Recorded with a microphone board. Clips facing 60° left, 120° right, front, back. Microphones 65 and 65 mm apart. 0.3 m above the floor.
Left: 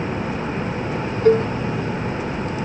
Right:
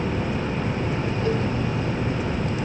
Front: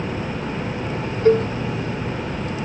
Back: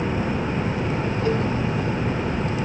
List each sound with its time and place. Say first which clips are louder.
1.2 s a cowbell: left 11 dB, front 9 dB; 40° left